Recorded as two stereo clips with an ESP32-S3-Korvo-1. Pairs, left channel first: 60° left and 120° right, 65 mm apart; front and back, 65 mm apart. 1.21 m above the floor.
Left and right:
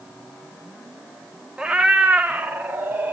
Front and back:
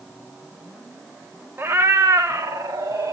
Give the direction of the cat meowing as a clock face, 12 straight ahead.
6 o'clock.